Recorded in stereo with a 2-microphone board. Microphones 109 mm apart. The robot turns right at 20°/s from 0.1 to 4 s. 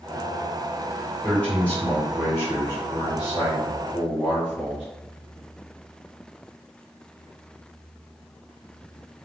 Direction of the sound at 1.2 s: 10° left.